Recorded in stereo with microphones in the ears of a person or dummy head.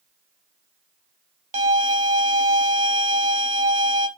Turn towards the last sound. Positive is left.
turn(degrees=-45)  # may be behind; listen again after turning